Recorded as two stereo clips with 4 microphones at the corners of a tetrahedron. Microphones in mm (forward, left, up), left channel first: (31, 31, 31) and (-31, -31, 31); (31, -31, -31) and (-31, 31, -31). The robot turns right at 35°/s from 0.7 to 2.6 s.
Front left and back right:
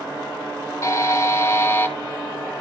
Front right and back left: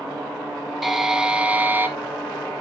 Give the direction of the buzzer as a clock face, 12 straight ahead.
10 o'clock.